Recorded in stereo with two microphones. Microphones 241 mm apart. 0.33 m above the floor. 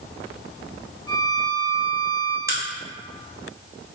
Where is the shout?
No shout in this recording.